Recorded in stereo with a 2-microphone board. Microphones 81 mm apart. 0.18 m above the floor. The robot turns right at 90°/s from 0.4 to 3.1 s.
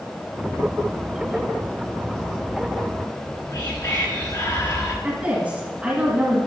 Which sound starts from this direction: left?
Whispering, at 3.1 s.